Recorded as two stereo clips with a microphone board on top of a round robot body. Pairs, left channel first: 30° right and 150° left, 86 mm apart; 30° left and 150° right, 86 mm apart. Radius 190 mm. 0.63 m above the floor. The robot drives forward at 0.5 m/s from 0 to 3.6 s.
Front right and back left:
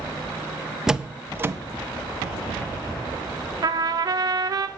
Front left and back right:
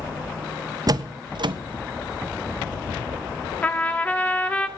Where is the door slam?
125° right, 0.6 m; by 1.6 s 150° right, 0.8 m.